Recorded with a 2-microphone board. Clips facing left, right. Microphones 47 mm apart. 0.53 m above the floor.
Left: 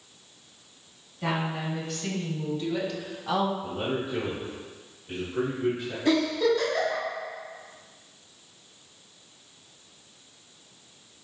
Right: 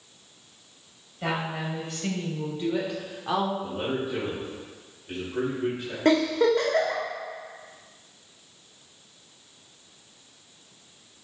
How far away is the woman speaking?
About 2.5 m.